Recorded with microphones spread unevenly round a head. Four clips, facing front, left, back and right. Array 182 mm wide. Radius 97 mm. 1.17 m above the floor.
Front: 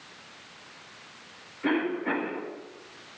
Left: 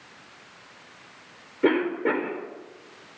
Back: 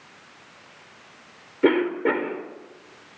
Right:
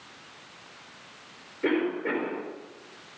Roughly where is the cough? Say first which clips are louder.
Left 4 dB, back 7 dB; behind left.